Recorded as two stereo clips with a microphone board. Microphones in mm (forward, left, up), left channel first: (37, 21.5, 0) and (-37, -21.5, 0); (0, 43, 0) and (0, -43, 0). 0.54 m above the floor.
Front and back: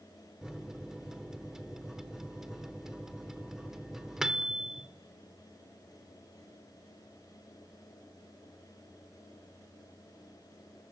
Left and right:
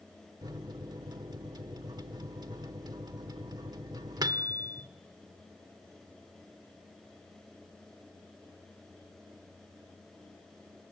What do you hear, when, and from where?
0.4 s a microwave: 65° right, 1.1 m